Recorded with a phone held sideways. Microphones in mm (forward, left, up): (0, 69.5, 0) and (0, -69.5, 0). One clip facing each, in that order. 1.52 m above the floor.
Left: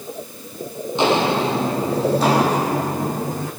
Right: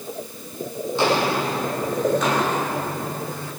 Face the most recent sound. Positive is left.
turn(degrees=40)  # may be behind; listen again after turning